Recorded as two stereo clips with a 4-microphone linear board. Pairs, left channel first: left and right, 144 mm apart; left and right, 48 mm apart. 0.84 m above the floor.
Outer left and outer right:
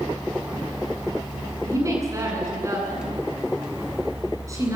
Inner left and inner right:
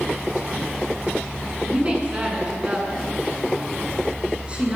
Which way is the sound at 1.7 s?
20° right (ahead or behind).